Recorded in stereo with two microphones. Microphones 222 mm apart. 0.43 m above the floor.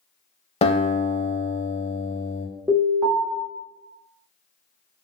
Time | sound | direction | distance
0.6 | a guitar | 30° left (ahead or behind) | 0.6 m
2.7 | an alarm | 15° right (ahead or behind) | 1.0 m